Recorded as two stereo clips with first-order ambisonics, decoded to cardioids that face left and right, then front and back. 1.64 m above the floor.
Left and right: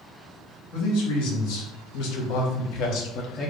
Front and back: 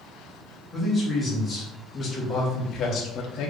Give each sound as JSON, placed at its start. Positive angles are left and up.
{"t": 0.7, "sound": "a man speaking", "azimuth_deg": 85, "distance_m": 1.8}